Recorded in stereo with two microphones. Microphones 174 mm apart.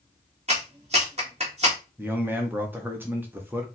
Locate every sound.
0.5 s a clap: 40° right (ahead or behind), 1.8 m
2.0 s a man speaking: 10° right (ahead or behind), 0.7 m